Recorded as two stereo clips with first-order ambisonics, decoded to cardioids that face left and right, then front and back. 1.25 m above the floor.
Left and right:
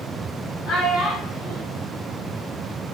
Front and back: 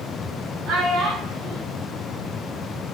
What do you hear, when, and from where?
0.7 s a child speaking: 140° left, 0.6 m